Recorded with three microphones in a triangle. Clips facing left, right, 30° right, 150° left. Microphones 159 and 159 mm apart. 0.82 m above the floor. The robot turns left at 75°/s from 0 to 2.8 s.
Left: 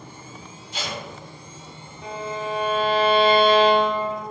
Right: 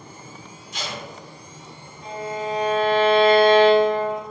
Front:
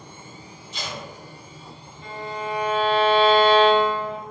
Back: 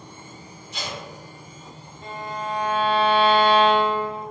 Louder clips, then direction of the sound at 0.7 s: Left 1 dB, back 1 dB; 150° left.